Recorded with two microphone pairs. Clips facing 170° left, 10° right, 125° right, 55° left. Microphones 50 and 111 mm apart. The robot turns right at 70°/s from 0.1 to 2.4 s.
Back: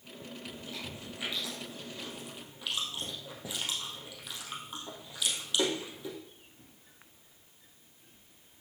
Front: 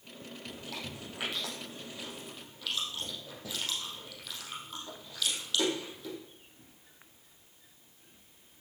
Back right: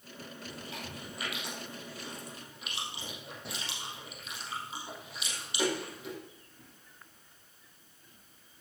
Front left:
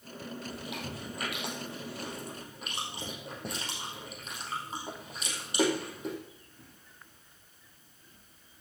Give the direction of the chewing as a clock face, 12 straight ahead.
1 o'clock.